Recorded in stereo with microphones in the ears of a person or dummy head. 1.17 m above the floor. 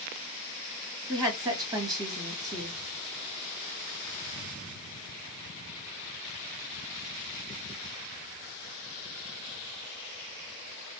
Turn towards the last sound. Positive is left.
turn(degrees=-25)  # may be behind; listen again after turning